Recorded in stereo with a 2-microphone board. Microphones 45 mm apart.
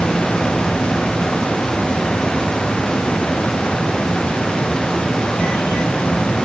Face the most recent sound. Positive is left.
No sound to turn to.